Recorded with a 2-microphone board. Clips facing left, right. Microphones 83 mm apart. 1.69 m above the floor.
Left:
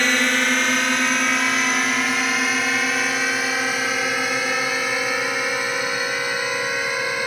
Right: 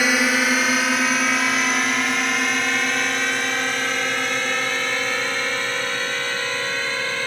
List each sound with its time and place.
0.0 s a drone: 5° right (ahead or behind); by 7.3 s 15° left (ahead or behind)